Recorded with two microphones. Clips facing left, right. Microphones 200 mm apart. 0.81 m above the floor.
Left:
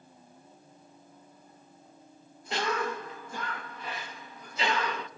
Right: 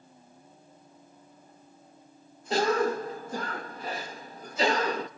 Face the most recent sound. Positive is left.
turn(degrees=-40)  # may be behind; listen again after turning